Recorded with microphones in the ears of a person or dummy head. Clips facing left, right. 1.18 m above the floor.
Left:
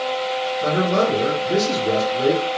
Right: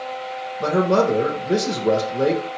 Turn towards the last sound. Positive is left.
turn(degrees=-75)  # may be behind; listen again after turning